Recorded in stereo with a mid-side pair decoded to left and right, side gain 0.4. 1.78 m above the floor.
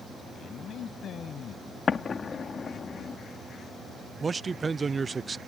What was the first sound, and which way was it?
A man speaking, 65° left.